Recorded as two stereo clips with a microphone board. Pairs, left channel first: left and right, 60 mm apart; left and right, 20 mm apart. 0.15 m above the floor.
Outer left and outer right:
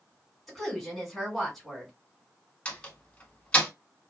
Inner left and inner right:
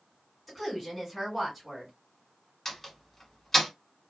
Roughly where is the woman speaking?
Centre.